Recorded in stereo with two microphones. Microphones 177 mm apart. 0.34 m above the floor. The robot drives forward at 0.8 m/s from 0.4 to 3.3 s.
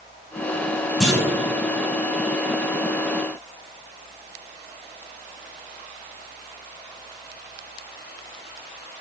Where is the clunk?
Centre (ahead or behind), 4.5 m.